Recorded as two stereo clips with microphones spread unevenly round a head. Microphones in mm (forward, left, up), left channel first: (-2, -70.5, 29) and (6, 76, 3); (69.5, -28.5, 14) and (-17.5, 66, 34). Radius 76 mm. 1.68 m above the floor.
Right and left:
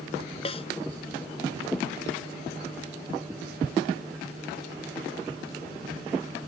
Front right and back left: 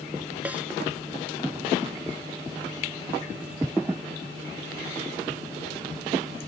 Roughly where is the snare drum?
Behind right.